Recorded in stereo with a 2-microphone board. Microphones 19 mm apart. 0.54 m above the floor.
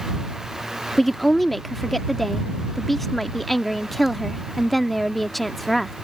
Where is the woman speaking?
5° left (ahead or behind).